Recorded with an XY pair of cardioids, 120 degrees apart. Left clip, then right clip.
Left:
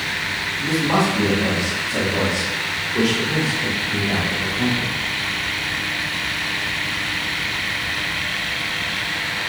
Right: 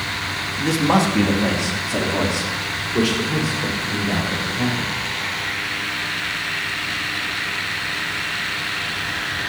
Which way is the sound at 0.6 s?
55° right.